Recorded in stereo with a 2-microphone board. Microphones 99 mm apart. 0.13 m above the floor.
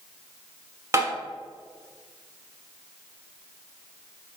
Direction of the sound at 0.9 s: 30° right (ahead or behind).